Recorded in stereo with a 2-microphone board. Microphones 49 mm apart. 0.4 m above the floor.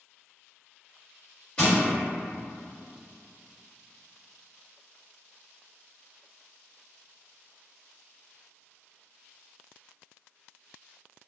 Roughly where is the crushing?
Centre.